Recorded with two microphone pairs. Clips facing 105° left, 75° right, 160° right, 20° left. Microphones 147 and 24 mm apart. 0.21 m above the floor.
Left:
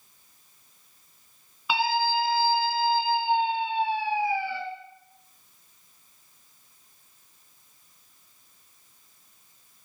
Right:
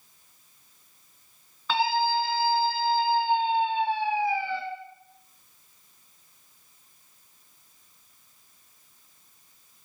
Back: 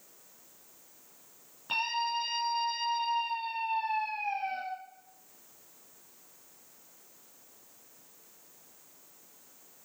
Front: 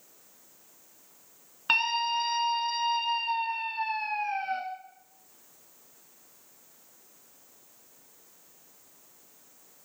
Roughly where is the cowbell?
No cowbell in this recording.